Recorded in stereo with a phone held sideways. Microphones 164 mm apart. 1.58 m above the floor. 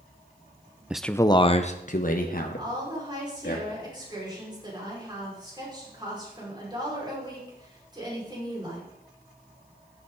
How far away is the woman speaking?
About 5.5 m.